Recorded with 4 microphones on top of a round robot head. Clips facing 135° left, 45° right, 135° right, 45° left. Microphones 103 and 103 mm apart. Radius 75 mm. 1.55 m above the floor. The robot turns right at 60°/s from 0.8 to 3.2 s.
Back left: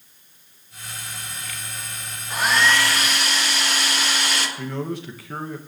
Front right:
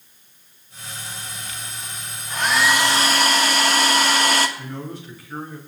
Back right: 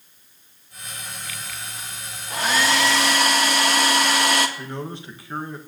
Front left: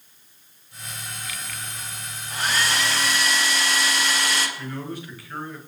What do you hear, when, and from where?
2.3 s a hair dryer: 150° right, 1.5 m; by 4.5 s 95° right, 1.5 m
4.6 s a man speaking: 160° left, 2 m